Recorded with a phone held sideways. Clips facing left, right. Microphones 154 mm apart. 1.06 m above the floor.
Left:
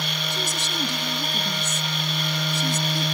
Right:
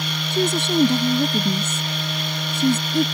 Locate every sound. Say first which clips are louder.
0.3 s a woman speaking: right 16 dB; 60° right (ahead or behind)